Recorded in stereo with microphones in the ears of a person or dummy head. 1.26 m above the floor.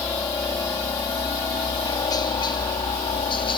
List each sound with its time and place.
0.0 s a helicopter: 15° left (ahead or behind); by 3.6 s 25° left (ahead or behind)